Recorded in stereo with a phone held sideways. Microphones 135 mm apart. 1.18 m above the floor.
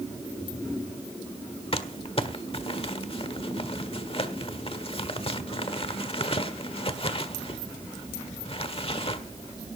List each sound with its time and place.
1.7 s crumpling: 45° left (ahead or behind), 1.4 m